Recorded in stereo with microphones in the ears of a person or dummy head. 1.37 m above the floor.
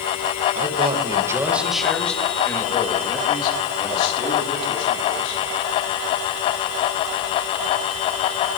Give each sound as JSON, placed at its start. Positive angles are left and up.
{"t": 0.6, "sound": "a man speaking", "side_deg": -40, "distance_m": 1.3}